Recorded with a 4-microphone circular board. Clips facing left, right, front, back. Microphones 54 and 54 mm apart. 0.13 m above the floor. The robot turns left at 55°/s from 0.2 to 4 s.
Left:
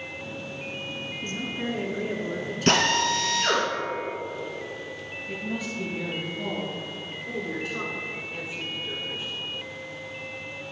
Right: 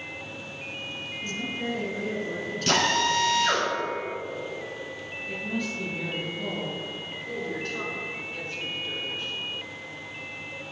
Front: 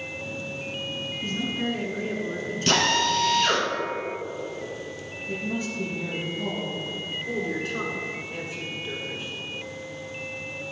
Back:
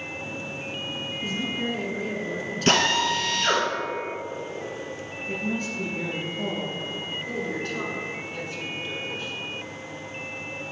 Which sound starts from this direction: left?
A woman speaking, at 1.2 s.